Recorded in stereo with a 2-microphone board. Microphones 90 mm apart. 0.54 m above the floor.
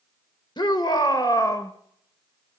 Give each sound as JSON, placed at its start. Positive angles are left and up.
{"t": 0.6, "sound": "a shout", "side_deg": 60, "distance_m": 1.6}